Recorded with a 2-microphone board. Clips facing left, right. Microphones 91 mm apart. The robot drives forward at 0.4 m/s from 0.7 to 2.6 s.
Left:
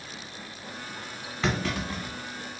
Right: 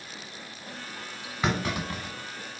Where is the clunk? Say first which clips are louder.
Even; 15° right (ahead or behind), 1.2 m.